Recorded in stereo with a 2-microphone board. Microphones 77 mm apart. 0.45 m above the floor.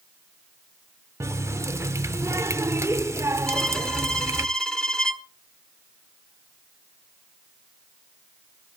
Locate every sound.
1.2 s a running tap: 40° right (ahead or behind), 0.6 m
3.5 s a violin: 10° left (ahead or behind), 1.6 m